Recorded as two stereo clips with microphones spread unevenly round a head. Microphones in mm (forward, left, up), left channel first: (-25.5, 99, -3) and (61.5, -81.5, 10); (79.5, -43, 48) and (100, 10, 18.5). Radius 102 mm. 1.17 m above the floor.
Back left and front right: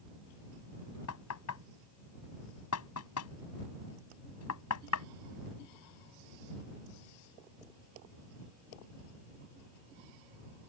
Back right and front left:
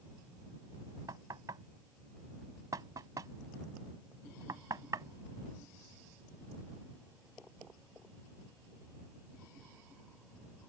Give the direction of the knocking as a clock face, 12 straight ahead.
8 o'clock.